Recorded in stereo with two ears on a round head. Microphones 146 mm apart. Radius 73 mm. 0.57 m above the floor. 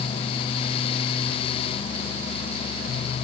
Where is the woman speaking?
No woman speaking in this recording.